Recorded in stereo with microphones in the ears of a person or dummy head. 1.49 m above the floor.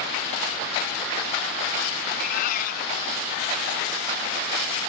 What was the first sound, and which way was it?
A cat meowing, 50° left (ahead or behind).